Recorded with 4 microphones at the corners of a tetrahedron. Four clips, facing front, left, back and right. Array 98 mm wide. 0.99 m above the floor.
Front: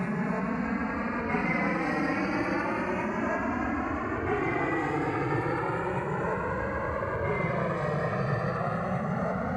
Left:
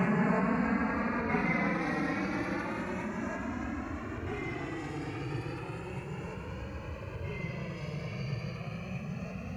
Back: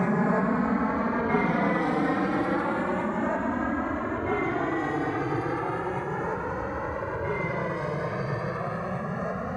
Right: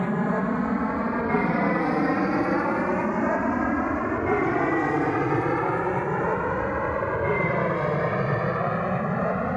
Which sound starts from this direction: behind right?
An aircraft, at 0.0 s.